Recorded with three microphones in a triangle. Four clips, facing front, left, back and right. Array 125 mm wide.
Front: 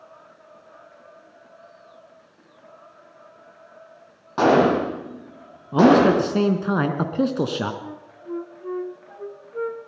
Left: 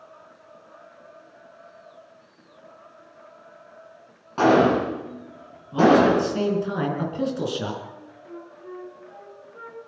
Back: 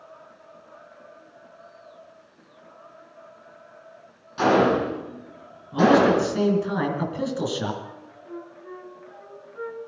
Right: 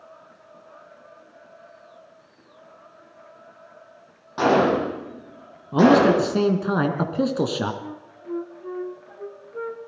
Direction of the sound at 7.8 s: 35° right.